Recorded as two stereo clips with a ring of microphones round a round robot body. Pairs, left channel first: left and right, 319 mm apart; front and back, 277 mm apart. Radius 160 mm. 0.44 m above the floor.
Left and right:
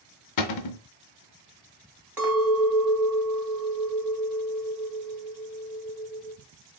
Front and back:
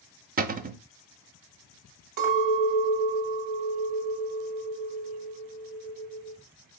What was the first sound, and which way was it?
A cupboard door, 120° left.